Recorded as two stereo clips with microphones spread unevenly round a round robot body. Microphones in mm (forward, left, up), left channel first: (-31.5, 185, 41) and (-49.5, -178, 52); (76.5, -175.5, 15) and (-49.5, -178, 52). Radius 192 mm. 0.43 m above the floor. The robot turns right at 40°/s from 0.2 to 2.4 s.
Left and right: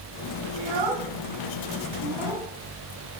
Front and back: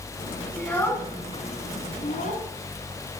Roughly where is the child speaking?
Right.